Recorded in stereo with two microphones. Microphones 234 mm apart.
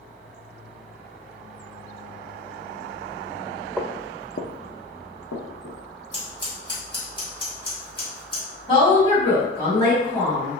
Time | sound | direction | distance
3.8 | footsteps | centre (ahead or behind) | 0.6 m
6.1 | scissors | 20° left (ahead or behind) | 1.5 m
8.7 | a woman speaking | 20° left (ahead or behind) | 1.8 m